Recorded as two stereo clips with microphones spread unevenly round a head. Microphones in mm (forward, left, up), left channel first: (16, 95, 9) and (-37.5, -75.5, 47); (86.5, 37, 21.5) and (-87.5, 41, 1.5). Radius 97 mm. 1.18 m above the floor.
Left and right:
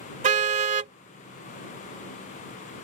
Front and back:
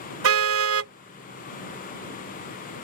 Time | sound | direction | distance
0.2 | a car horn | 155° right | ?